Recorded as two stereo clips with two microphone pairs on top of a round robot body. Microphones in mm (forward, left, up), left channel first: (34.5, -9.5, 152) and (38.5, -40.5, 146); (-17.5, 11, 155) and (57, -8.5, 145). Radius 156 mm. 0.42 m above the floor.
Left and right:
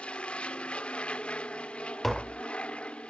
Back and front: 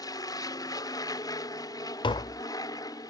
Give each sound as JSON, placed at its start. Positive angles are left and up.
{"t": 0.0, "sound": "an aircraft", "azimuth_deg": 150}
{"t": 2.0, "sound": "tapping", "azimuth_deg": -175}